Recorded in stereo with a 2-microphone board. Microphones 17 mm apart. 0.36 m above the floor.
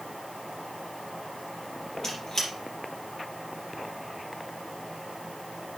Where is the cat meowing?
No cat meowing in this recording.